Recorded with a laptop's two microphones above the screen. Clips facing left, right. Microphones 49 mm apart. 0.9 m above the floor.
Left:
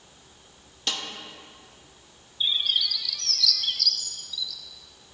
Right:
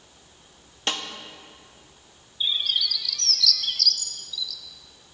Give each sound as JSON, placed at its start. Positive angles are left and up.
{"t": 0.9, "sound": "a snare drum", "side_deg": -35, "distance_m": 0.9}
{"t": 2.4, "sound": "a bird", "side_deg": 5, "distance_m": 0.8}